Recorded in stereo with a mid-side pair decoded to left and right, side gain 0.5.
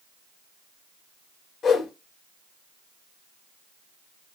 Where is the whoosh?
50° left, 4 m.